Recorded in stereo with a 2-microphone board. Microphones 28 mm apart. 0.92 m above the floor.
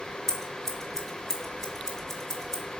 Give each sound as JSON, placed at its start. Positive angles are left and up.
{"t": 0.3, "sound": "scissors", "side_deg": 15, "distance_m": 1.7}